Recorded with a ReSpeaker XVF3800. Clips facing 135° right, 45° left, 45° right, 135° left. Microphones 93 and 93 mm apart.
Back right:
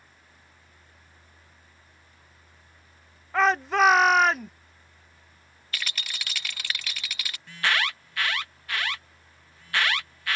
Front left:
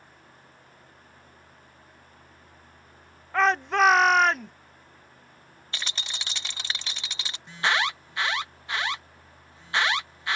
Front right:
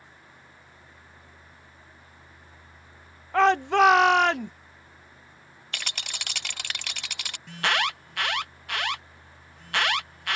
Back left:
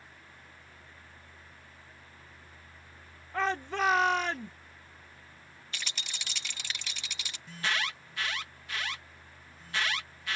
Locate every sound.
3.3 s a shout: 45° right
5.7 s a rattle: 20° right
7.5 s an alarm: 25° right